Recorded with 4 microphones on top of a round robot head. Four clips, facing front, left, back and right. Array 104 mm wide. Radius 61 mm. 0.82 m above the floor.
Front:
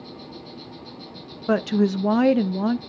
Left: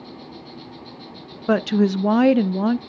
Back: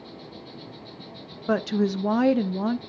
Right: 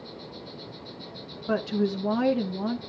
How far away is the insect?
About 3 m.